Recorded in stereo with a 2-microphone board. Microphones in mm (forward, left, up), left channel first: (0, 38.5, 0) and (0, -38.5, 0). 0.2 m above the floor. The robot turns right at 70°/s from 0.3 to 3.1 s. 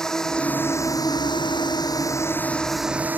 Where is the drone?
10° left; by 3.2 s 155° right.